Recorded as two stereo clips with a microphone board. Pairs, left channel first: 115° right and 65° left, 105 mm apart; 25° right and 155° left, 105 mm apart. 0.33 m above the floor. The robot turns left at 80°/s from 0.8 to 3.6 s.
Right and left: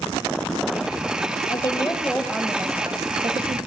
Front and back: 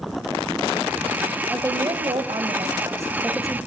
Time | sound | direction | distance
1.5 | a woman speaking | 135° right | 1.8 m